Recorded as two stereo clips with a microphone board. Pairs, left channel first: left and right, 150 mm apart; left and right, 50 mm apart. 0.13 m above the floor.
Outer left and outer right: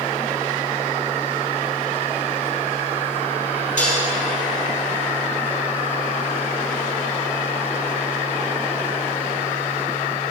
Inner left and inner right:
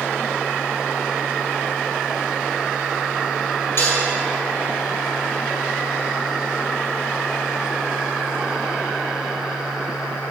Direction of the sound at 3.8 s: 60° left (ahead or behind).